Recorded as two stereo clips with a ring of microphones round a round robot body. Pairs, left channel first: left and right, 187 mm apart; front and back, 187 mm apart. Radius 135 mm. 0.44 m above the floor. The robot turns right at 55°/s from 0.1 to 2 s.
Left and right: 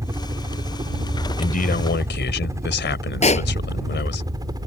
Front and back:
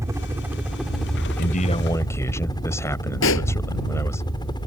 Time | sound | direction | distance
0.0 | a helicopter | 135° right | ?
1.4 | a man speaking | 45° left | ?
3.2 | a pop | 35° left | ?